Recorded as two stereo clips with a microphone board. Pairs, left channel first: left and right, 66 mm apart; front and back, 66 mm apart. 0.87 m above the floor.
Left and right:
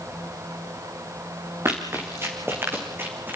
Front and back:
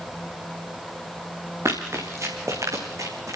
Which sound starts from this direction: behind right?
Running footsteps, at 1.6 s.